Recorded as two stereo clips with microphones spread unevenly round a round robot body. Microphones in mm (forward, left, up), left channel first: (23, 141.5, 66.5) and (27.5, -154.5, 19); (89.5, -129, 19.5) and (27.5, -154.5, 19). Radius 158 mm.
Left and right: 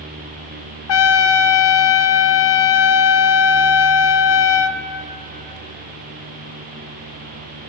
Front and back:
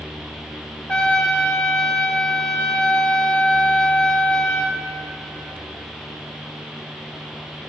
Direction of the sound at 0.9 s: 95° left.